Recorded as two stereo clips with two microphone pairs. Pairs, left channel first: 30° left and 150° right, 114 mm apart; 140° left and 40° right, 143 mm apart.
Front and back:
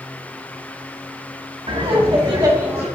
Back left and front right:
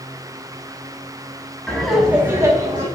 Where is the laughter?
140° right, 2.5 m; by 2.9 s 85° right, 2 m.